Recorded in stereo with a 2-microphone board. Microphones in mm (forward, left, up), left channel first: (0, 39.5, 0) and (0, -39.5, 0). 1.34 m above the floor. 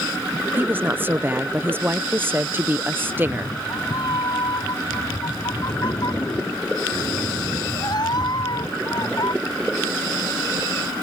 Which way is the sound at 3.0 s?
60° left (ahead or behind).